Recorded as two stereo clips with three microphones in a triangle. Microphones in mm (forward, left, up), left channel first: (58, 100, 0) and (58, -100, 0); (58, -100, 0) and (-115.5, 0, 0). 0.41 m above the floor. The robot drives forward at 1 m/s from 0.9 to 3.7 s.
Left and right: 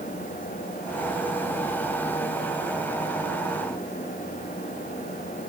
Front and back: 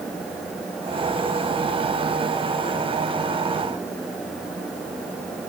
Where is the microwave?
I don't hear a microwave.